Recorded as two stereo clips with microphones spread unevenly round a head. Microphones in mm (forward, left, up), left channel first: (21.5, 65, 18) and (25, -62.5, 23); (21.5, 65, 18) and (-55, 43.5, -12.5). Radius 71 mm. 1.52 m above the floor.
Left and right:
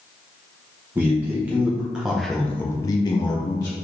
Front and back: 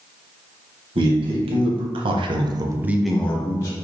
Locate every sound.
0.9 s a man speaking: 165° right, 1.6 m; by 3.8 s 35° left, 0.9 m